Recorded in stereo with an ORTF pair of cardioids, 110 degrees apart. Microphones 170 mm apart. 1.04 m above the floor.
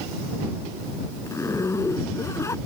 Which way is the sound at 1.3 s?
20° left.